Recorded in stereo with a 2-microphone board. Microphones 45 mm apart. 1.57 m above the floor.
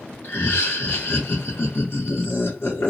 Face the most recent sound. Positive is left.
turn(degrees=45)  # may be behind; listen again after turning